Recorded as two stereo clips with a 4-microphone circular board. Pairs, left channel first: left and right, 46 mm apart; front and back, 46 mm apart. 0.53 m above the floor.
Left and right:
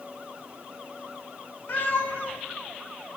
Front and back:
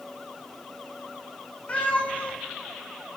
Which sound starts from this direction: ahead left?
A cat meowing, at 1.7 s.